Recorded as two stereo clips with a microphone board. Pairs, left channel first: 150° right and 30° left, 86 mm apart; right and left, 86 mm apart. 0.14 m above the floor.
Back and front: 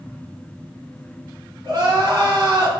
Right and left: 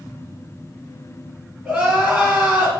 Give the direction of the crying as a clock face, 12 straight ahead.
11 o'clock.